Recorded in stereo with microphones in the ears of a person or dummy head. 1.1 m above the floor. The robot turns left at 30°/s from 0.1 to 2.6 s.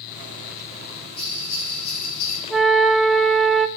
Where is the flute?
Centre (ahead or behind), 1.0 m; by 3.7 s 5° left (ahead or behind), 1.0 m.